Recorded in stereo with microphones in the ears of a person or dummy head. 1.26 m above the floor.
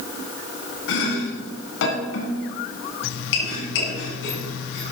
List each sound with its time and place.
0.9 s chopping: 70° left (ahead or behind), 3 m